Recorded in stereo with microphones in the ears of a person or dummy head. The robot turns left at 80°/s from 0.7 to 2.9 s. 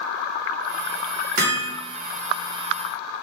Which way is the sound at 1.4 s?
50° right (ahead or behind).